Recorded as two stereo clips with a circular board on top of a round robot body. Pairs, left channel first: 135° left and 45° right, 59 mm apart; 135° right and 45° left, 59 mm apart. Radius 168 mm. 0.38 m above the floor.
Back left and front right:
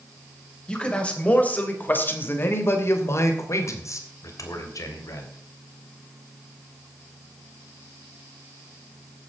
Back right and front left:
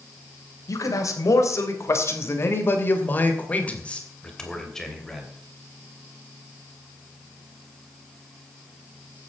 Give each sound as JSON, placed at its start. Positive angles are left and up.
{"t": 0.7, "sound": "a man speaking", "azimuth_deg": -150, "distance_m": 3.5}